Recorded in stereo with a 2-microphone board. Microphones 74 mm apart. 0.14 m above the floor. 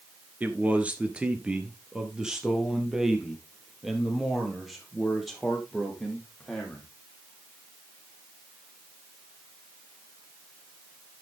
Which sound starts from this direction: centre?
A man speaking, at 0.4 s.